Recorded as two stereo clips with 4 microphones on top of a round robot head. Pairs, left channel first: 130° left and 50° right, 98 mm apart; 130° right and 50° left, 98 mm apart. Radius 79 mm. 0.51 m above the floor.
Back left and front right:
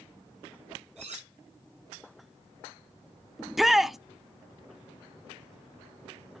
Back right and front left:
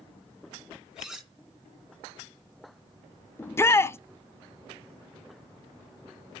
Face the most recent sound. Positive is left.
turn(degrees=-135)